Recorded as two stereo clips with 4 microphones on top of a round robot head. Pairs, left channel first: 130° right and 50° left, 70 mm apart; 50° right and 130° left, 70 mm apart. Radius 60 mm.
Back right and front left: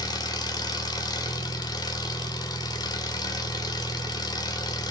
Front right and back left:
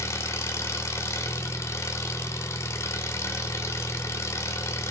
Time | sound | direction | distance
0.0 | an engine running | 105° right | 1.4 m